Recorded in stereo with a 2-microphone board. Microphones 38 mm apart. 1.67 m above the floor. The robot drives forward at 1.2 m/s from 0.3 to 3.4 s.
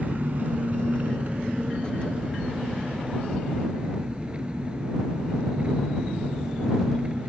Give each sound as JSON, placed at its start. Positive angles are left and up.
{"t": 0.0, "sound": "an engine running", "side_deg": -45}